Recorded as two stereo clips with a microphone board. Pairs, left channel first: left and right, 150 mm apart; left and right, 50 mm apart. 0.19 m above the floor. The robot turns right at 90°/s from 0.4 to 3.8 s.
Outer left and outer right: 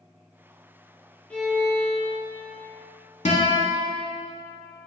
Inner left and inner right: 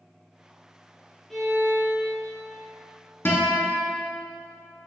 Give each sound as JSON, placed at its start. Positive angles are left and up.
{"t": 1.3, "sound": "a violin", "azimuth_deg": 170, "distance_m": 0.8}
{"t": 3.2, "sound": "a guitar", "azimuth_deg": 105, "distance_m": 0.8}